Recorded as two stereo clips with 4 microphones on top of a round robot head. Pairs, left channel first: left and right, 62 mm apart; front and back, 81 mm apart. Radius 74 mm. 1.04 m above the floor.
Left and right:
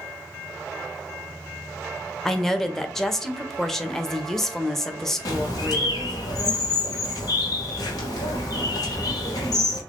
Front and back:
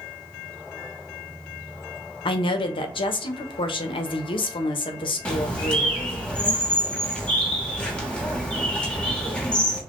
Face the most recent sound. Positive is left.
turn(degrees=80)